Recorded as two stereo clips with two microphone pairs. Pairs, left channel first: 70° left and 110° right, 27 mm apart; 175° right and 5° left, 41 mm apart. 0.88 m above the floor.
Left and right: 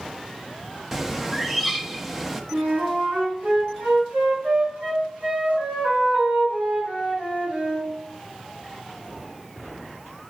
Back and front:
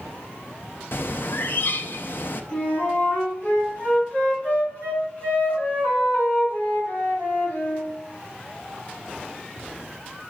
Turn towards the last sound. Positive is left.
turn(degrees=-120)